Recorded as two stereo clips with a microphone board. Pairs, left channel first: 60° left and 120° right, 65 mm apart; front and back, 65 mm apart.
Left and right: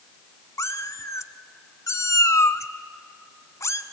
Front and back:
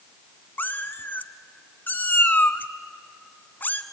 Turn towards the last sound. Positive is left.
turn(degrees=50)